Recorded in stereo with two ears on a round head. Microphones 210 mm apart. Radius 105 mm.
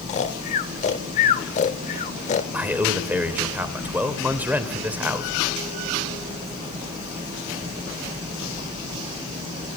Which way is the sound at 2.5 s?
5° right (ahead or behind).